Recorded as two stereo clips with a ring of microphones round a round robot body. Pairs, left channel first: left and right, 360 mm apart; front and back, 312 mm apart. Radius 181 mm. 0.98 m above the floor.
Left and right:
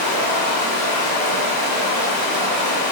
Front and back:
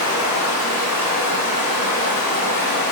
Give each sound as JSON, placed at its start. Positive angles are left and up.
{"t": 0.0, "sound": "running water", "azimuth_deg": -20, "distance_m": 1.4}